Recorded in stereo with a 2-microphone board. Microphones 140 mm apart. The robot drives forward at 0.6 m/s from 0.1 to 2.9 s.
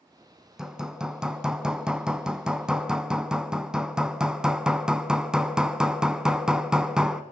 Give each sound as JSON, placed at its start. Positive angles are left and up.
{"t": 0.6, "sound": "hammering", "side_deg": -5, "distance_m": 1.4}